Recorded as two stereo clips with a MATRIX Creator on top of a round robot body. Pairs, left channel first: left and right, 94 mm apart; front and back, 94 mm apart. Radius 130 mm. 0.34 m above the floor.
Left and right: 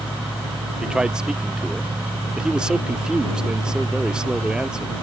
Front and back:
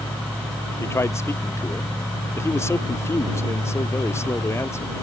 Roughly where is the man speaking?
Ahead.